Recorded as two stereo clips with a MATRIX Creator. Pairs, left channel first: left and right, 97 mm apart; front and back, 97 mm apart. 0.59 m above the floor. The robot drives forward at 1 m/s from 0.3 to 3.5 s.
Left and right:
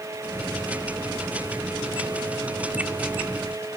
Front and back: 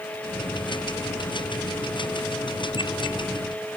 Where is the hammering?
I don't hear hammering.